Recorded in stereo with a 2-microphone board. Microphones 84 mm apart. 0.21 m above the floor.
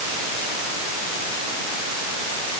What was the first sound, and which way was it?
Only background noise.